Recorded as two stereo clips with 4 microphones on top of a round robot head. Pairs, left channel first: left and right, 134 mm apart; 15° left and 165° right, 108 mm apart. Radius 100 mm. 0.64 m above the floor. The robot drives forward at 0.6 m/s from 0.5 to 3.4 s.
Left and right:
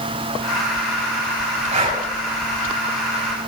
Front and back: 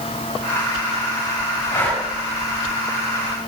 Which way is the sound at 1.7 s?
45° right.